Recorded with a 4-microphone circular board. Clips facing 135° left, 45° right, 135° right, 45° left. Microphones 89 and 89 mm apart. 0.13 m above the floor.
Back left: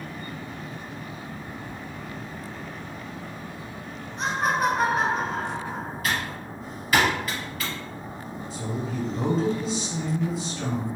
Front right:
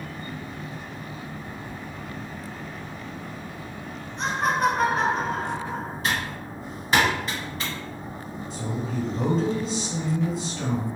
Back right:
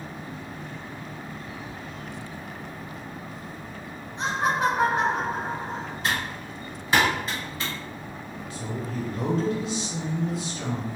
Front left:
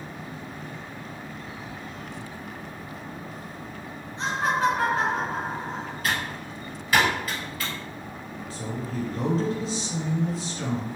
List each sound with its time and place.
4.2 s laughter: 140° right, 1.0 m
6.0 s typing on a keyboard: 85° right, 1.7 m
8.5 s a woman speaking: 50° left, 1.5 m